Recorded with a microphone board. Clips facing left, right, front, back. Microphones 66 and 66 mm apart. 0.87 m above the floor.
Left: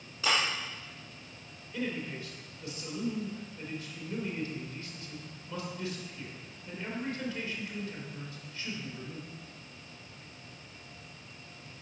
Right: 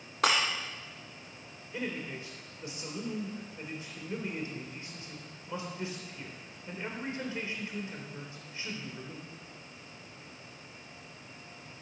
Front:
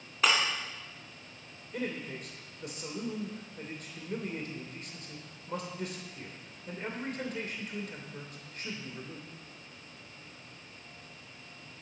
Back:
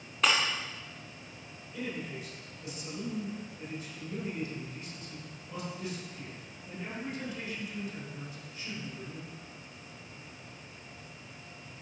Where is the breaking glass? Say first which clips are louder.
Right 2 dB, even; 90° right, 2.5 m.